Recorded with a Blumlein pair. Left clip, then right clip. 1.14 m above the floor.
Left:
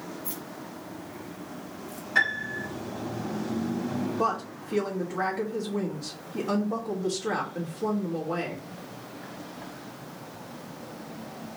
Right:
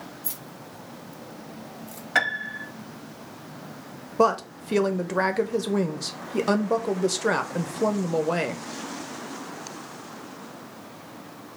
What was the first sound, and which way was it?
Keys jangling, 60° right.